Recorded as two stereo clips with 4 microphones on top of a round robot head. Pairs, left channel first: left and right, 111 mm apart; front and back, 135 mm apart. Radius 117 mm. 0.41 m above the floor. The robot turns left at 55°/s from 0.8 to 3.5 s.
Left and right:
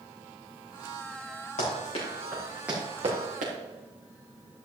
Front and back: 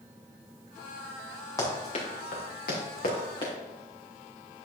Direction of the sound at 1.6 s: 65° left.